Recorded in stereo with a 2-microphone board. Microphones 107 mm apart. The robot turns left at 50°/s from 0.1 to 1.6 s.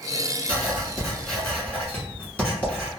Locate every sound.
0.5 s writing: 145° right, 1.4 m; by 2.9 s 160° left, 1.4 m